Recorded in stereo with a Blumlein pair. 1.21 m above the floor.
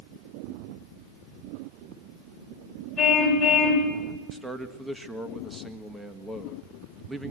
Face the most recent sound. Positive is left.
turn(degrees=-5)